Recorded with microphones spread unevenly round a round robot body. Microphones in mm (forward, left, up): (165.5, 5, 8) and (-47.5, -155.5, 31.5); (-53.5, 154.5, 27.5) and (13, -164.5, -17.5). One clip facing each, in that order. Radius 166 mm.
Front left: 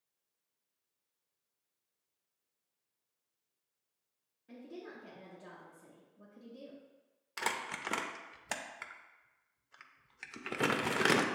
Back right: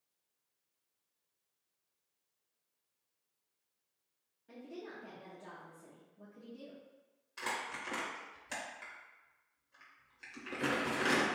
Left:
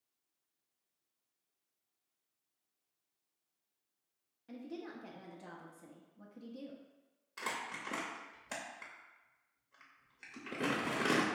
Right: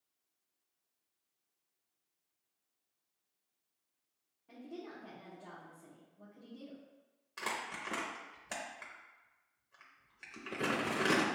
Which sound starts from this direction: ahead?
Crumpling, at 7.4 s.